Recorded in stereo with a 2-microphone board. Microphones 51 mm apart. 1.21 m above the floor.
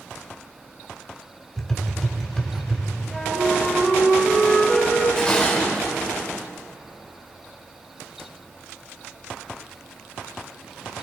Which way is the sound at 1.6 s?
10° left (ahead or behind).